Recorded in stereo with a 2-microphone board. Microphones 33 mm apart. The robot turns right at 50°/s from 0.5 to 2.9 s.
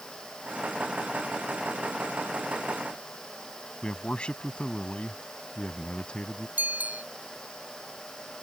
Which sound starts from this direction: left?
A man speaking, at 3.8 s.